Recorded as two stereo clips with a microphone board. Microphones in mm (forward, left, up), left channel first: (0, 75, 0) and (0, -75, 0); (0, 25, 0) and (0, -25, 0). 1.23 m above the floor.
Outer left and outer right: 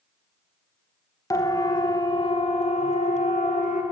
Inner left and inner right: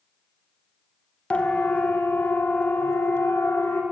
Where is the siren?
25° left (ahead or behind), 2 m; by 3.8 s 60° left (ahead or behind), 2 m.